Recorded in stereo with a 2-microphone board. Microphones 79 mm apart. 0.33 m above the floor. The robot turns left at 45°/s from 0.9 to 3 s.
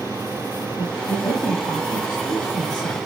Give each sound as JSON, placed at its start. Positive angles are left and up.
{"t": 0.8, "sound": "a woman speaking", "azimuth_deg": 140, "distance_m": 8.5}